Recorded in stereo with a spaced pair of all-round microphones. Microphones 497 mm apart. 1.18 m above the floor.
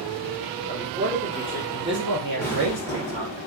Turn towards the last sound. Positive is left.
turn(degrees=5)  # may be behind; listen again after turning